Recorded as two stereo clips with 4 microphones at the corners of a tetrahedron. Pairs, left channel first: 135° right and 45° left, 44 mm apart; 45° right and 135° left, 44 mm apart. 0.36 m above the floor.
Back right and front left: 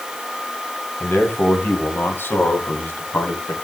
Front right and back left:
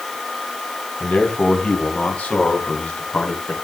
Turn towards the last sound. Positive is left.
turn(degrees=-100)